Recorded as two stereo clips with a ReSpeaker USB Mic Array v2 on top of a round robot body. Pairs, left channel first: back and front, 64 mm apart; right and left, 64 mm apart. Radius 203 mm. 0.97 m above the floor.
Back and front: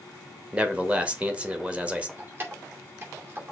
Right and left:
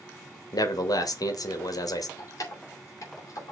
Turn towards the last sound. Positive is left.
turn(degrees=-55)